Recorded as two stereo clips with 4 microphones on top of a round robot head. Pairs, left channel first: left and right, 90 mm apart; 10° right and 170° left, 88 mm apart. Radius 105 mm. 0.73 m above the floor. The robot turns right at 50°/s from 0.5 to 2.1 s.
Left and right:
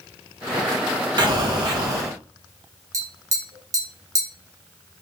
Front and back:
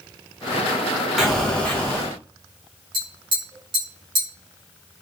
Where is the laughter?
I don't hear laughter.